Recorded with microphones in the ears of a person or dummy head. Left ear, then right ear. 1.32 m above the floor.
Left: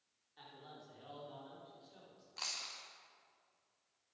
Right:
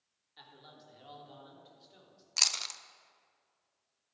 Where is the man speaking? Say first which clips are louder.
Even; 30° right (ahead or behind), 3.5 m.